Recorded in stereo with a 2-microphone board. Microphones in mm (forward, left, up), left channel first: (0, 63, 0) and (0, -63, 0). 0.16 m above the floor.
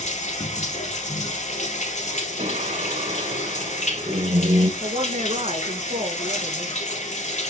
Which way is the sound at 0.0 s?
65° left (ahead or behind).